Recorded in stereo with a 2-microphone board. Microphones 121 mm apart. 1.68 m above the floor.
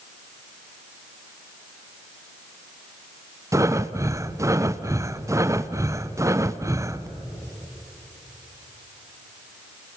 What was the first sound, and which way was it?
Breathing, 25° right (ahead or behind).